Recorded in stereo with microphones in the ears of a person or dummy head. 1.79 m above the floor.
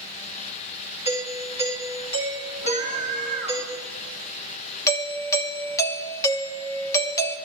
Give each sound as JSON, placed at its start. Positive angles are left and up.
{"t": 1.1, "sound": "a doorbell", "side_deg": 30, "distance_m": 3.0}
{"t": 2.6, "sound": "a scream", "side_deg": 65, "distance_m": 5.0}
{"t": 4.9, "sound": "a doorbell", "side_deg": 20, "distance_m": 1.1}